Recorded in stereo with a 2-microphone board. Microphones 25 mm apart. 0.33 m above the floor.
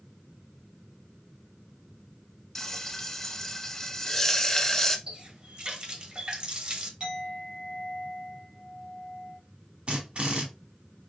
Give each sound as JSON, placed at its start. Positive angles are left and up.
{"t": 2.5, "sound": "frying", "side_deg": 15, "distance_m": 0.6}
{"t": 5.1, "sound": "a running tap", "side_deg": -40, "distance_m": 0.8}
{"t": 7.0, "sound": "a clink", "side_deg": -35, "distance_m": 2.0}
{"t": 9.9, "sound": "a drill", "side_deg": -45, "distance_m": 1.3}